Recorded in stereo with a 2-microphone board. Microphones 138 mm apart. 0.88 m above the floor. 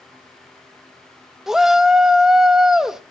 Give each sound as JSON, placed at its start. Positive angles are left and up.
{"t": 1.5, "sound": "a shout", "side_deg": -5, "distance_m": 1.5}